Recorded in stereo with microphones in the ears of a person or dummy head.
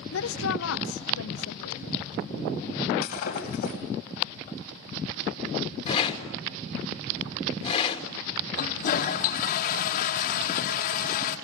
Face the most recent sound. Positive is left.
turn(degrees=50)  # may be behind; listen again after turning